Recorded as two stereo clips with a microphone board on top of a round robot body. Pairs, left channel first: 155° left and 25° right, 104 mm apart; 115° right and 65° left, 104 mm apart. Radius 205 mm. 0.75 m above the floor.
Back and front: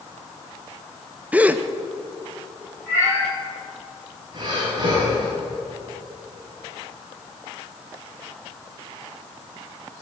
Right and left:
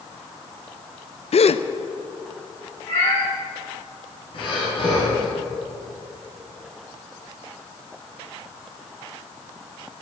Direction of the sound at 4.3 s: 75° right.